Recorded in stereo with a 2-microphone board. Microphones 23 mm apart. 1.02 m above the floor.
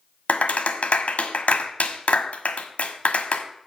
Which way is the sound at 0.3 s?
80° left.